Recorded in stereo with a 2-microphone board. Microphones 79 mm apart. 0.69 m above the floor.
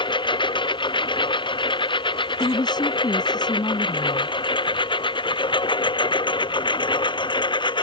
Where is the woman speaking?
65° left (ahead or behind).